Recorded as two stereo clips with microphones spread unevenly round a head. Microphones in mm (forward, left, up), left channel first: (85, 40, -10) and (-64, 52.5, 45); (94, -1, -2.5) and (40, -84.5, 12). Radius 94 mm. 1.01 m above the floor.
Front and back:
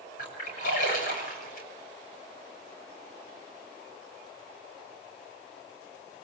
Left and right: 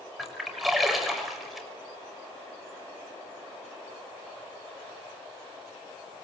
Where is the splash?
35° right, 6 m.